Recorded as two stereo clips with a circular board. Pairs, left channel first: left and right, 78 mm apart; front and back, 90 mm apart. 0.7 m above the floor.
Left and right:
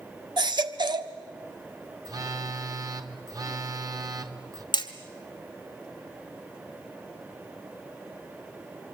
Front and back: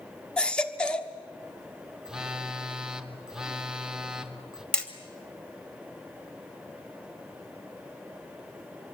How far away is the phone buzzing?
About 1.5 m.